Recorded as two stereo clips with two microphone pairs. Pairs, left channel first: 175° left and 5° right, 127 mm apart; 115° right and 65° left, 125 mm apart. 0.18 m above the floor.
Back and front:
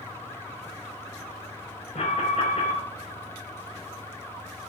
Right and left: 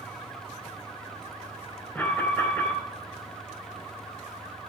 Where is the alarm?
170° left, 3.5 m.